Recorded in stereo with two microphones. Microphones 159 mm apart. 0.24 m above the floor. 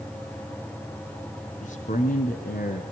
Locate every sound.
1.6 s a man speaking: 55° left (ahead or behind), 2.5 m; by 2.8 s 70° left (ahead or behind), 2.5 m